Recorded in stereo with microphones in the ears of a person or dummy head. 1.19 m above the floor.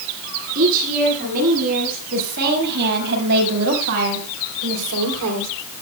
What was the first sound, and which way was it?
A woman speaking, 50° right (ahead or behind).